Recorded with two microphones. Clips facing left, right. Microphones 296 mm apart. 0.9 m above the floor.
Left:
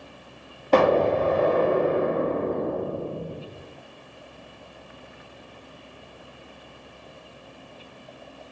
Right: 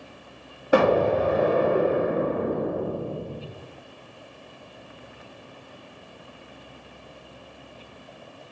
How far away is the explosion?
About 0.6 m.